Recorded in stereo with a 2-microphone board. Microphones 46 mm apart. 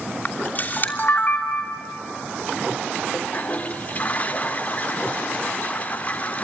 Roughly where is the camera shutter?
Left.